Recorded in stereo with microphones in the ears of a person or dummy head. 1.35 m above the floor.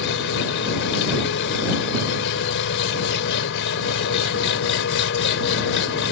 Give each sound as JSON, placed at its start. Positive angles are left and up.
{"t": 0.0, "sound": "an engine running", "side_deg": 70}